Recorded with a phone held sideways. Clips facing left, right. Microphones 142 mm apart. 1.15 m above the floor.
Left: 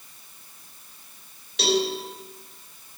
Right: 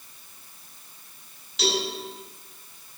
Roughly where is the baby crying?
No baby crying in this recording.